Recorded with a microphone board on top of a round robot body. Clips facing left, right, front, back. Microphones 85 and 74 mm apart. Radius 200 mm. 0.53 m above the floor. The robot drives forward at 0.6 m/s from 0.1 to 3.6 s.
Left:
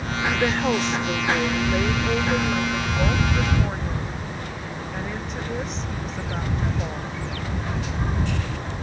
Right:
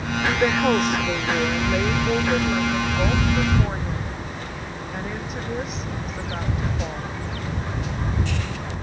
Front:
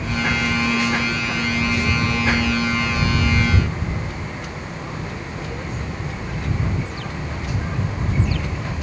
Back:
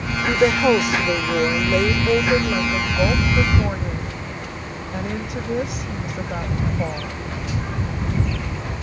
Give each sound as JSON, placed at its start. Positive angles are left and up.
{"t": 0.3, "sound": "a woman speaking", "azimuth_deg": -170}